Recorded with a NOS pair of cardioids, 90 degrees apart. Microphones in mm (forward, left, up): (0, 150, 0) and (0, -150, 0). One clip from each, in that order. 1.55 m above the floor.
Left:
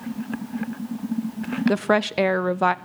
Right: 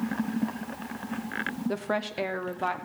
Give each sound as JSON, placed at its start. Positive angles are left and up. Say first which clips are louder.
{"t": 1.7, "sound": "a woman speaking", "louder": "left 12 dB", "azimuth_deg": 40, "distance_m": 0.5}